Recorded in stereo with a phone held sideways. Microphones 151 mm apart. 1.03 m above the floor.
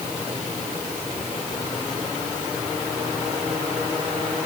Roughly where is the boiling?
I don't hear boiling.